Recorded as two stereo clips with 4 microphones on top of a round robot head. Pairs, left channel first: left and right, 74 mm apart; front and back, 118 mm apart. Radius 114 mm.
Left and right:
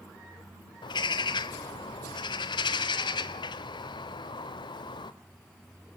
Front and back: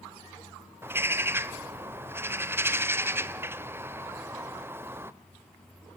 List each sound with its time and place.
0.8 s a bird: 110° left, 0.7 m